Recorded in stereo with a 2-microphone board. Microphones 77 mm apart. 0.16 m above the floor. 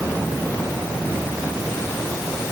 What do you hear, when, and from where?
Only background noise.